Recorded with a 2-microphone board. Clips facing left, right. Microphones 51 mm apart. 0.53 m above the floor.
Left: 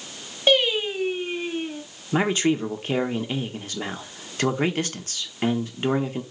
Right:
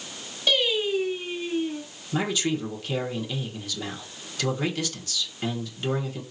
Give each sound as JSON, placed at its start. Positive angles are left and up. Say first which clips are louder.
{"t": 0.5, "sound": "singing", "louder": "left 3 dB", "side_deg": 35, "distance_m": 2.5}
{"t": 2.1, "sound": "a man speaking", "louder": "left 5 dB", "side_deg": 35, "distance_m": 1.1}